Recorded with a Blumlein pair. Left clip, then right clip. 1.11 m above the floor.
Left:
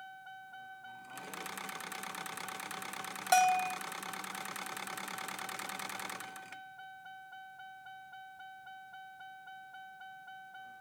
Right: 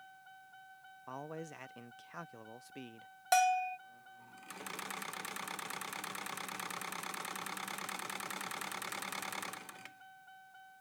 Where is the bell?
10° left.